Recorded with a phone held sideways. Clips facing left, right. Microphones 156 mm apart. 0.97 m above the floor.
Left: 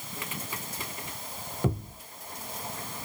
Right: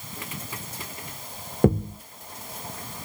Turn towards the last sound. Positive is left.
turn(degrees=-55)  # may be behind; listen again after turning